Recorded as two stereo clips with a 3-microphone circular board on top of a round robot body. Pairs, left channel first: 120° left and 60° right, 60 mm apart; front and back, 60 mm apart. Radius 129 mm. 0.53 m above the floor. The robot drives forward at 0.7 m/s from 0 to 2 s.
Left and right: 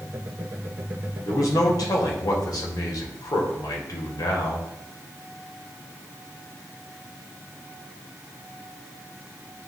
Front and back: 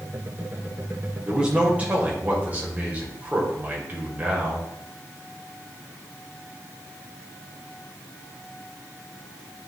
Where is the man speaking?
105° left, 2.5 m; by 4.7 s 115° left, 2.5 m.